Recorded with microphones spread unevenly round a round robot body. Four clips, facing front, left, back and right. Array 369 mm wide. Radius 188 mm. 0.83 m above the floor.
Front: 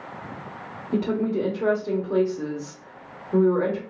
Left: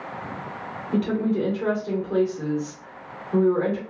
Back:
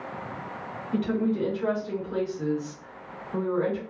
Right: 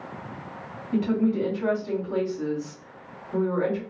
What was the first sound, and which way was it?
A woman speaking, 15° left.